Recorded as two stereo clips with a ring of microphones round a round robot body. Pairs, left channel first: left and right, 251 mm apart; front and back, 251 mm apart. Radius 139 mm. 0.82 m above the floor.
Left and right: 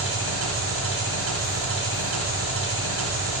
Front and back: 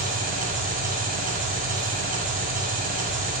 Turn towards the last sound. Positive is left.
turn(degrees=-120)